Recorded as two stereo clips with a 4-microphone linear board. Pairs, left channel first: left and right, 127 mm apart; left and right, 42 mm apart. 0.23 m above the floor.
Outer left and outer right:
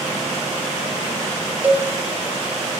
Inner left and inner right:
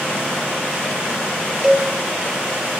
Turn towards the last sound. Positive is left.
turn(degrees=-15)  # may be behind; listen again after turning